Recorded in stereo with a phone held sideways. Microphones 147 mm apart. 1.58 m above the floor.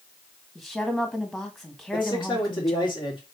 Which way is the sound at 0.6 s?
Centre (ahead or behind).